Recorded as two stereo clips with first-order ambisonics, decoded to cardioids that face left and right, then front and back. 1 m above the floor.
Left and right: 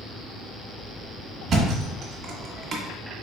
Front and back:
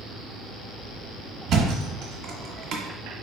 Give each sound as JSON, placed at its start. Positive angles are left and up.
{"t": 1.5, "sound": "a thud", "azimuth_deg": -145, "distance_m": 1.1}